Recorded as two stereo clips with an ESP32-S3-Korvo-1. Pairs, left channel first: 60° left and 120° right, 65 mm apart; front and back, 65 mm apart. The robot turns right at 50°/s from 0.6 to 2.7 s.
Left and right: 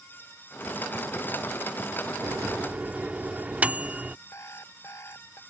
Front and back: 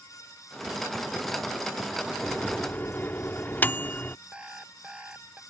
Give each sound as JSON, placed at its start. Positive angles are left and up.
{"t": 2.2, "sound": "a microwave", "azimuth_deg": -80}
{"t": 4.3, "sound": "an alarm clock", "azimuth_deg": 105}